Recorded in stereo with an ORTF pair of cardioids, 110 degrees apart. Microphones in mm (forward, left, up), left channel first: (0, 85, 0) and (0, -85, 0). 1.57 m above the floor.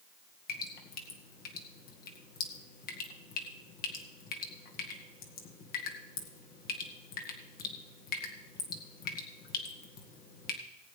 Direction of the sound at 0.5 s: 60° left.